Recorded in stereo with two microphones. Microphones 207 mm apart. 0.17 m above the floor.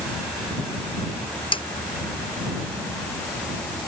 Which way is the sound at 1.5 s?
25° left (ahead or behind).